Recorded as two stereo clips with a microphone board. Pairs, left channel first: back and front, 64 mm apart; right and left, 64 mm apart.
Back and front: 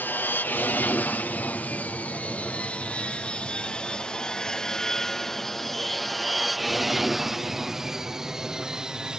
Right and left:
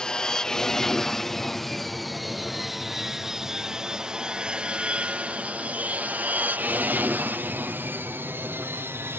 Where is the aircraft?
160° right; by 9.2 s 70° left.